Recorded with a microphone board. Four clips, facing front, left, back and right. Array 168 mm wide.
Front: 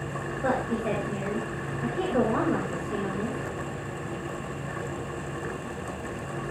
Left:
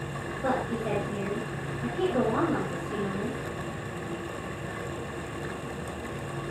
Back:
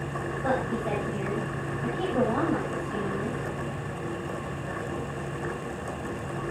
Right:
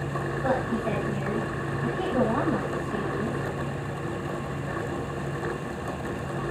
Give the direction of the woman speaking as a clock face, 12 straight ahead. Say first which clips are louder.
Right 1 dB, front 1 dB; 11 o'clock.